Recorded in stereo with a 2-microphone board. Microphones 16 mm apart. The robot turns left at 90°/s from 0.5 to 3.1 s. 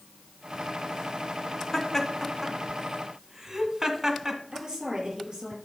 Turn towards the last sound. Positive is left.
turn(degrees=-45)  # may be behind; listen again after turning